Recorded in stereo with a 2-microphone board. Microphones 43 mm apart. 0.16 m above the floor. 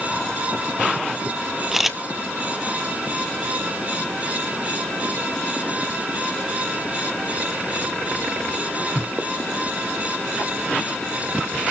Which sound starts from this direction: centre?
A camera shutter, at 1.7 s.